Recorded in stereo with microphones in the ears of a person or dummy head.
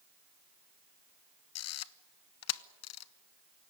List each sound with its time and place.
1.6 s a camera shutter: 75° left (ahead or behind), 0.9 m